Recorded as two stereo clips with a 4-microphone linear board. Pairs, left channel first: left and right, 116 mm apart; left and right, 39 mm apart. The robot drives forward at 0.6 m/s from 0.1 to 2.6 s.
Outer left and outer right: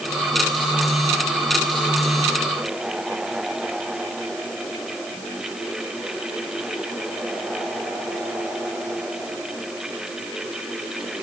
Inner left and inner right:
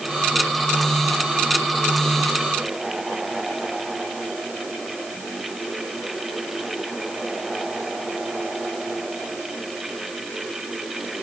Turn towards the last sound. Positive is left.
No sound to turn to.